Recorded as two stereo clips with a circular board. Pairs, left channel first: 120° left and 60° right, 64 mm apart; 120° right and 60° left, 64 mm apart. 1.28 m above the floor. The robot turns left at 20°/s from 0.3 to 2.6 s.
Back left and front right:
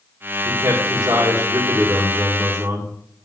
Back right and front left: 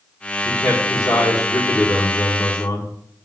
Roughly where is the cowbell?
I don't hear a cowbell.